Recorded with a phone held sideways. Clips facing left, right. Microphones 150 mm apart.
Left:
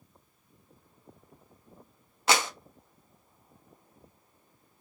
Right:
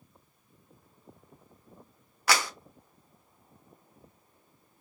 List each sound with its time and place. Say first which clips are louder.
2.3 s a clap: left 2 dB; 25° left (ahead or behind), 0.8 m